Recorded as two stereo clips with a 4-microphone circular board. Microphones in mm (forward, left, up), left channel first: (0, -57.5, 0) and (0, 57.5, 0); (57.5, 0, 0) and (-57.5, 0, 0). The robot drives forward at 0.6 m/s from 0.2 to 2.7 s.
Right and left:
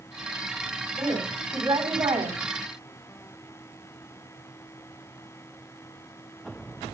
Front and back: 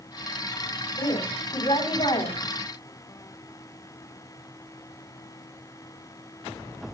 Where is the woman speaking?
30° left, 5.5 m; by 2.4 s 35° left, 4.5 m.